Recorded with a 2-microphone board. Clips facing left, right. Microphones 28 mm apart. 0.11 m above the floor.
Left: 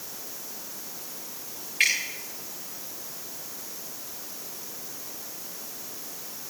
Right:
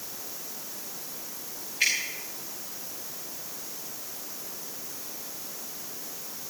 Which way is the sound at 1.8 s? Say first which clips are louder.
Left 3 dB; 80° left.